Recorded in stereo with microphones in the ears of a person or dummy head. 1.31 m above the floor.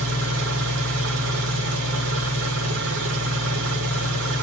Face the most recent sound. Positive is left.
turn(degrees=-70)  # may be behind; listen again after turning